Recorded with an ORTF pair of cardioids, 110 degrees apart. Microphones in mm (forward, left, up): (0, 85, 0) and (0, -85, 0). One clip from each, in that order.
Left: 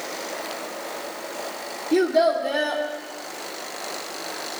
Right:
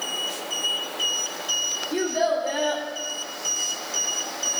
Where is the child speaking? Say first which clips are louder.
Left 6 dB; 55° left, 2.5 m.